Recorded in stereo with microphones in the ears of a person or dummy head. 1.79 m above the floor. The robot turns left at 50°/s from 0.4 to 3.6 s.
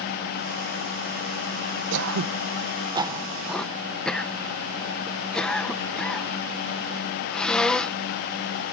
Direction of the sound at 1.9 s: 75° right (ahead or behind).